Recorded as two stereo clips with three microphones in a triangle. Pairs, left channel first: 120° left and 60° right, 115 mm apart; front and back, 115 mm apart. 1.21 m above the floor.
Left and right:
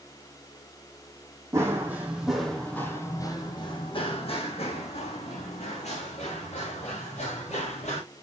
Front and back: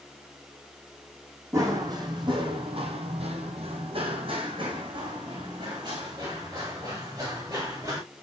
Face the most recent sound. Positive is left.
turn(degrees=120)